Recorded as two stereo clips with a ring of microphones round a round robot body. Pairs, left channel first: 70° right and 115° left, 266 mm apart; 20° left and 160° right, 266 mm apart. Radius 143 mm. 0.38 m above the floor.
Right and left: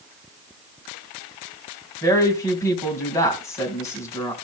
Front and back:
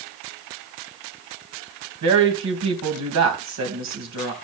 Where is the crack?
No crack in this recording.